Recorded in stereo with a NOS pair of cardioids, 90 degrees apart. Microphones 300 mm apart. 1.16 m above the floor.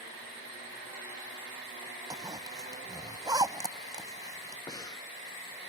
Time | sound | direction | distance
2.1 | a zipper | 15° right | ?
4.7 | breathing | 10° left | ?